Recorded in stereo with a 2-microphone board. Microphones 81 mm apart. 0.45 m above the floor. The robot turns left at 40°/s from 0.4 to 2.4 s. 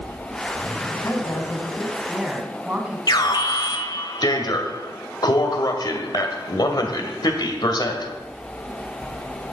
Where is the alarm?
55° left (ahead or behind), 1.8 m.